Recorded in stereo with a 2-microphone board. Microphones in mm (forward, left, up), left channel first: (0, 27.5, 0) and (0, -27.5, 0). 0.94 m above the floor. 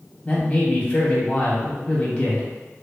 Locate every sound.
0.2 s a man speaking: 30° left (ahead or behind), 0.9 m